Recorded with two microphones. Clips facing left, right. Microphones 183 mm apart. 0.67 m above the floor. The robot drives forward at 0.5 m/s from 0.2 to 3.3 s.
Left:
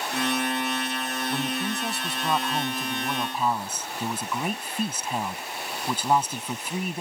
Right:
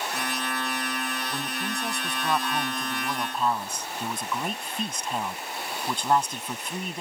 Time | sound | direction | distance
1.3 | a man speaking | 5° left (ahead or behind) | ?